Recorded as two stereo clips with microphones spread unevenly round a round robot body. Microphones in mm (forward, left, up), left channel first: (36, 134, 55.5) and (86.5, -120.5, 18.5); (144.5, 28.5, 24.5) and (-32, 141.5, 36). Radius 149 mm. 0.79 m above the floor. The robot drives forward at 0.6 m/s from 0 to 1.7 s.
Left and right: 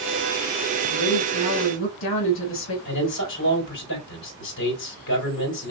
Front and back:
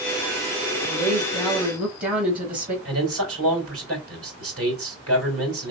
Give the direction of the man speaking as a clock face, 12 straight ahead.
7 o'clock.